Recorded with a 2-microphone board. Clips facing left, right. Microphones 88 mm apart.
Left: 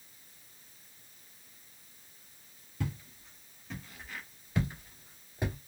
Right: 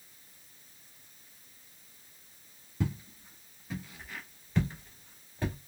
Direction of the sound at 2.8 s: 20° right (ahead or behind).